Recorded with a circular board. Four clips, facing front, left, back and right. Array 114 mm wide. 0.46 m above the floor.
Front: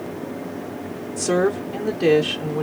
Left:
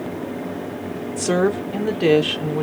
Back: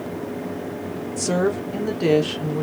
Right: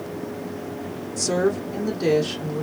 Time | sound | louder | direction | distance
1.2 | a woman speaking | left 3 dB, front 2 dB | 85° left | 0.7 m